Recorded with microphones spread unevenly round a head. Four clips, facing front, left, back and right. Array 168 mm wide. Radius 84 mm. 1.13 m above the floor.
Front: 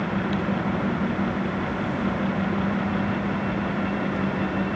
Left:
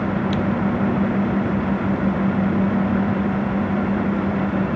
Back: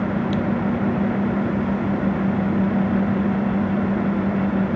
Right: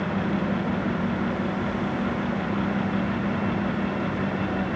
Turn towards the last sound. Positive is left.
No sound to turn to.